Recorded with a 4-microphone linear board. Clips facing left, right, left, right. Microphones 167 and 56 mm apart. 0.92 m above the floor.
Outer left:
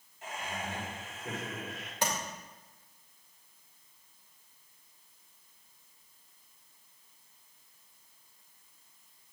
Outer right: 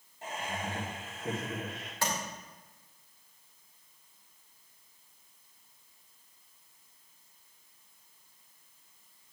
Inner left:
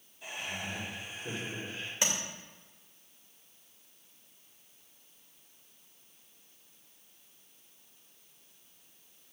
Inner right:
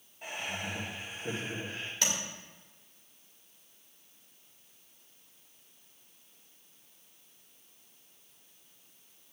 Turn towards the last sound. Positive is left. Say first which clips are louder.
# outer left 1 dB, inner left 1 dB
turn(degrees=20)  # may be behind; listen again after turning